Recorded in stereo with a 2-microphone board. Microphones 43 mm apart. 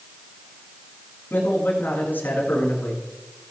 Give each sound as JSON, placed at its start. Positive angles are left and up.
{"t": 1.3, "sound": "a man speaking", "side_deg": 50, "distance_m": 7.0}